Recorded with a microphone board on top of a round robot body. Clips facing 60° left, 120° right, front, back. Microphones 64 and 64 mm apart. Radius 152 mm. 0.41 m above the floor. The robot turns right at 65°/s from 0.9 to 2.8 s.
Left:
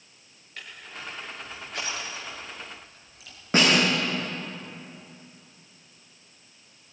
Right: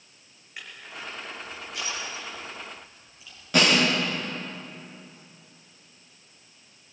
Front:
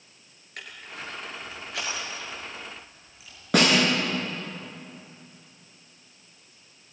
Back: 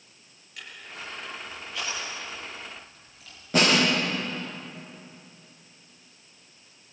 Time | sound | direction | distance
0.6 | crushing | 45° right | 5.5 m
3.5 | a snare drum | straight ahead | 9 m